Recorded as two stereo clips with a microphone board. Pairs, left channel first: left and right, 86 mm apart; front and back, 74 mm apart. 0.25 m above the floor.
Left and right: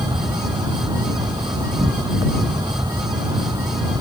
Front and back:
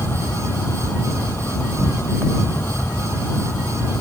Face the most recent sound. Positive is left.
turn(degrees=-60)